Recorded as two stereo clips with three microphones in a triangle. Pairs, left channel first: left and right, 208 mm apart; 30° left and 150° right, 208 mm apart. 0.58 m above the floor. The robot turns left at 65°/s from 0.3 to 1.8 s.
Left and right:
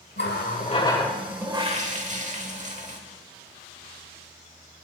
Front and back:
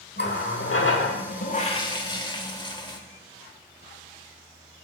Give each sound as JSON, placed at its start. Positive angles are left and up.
{"t": 0.2, "sound": "a running tap", "azimuth_deg": 60, "distance_m": 1.1}